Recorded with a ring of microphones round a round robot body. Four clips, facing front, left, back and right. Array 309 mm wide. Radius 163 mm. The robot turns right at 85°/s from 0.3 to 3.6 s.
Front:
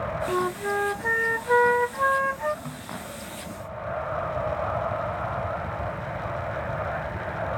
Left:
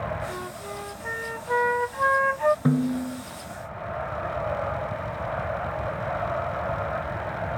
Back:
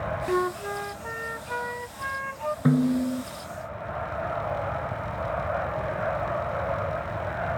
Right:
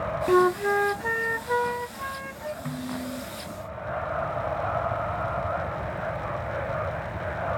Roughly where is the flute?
Right.